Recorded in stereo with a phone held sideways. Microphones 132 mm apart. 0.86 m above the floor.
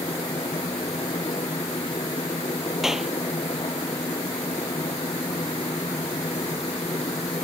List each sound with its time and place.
0.0 s a machine running: 40° left (ahead or behind)
2.8 s a clap: 5° right (ahead or behind)